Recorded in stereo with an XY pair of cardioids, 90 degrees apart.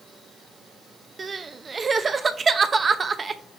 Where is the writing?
I don't hear writing.